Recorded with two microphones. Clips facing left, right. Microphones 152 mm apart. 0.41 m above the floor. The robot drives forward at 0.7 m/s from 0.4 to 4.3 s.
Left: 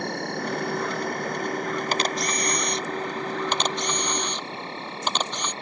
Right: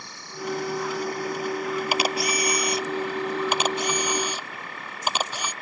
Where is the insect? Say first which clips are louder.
Left 6 dB; 60° left (ahead or behind); by 5.6 s 30° left (ahead or behind).